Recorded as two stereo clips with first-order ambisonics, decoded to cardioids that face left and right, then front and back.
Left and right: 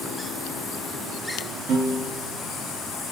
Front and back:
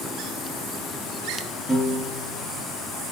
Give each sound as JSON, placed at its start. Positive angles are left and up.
{"t": 1.7, "sound": "a piano", "azimuth_deg": -85, "distance_m": 0.8}